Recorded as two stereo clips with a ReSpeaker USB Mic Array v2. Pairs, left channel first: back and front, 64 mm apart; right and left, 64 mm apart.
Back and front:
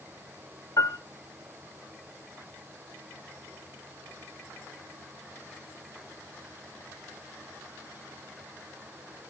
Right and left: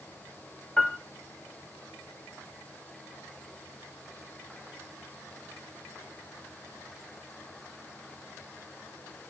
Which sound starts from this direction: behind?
A piano, at 0.8 s.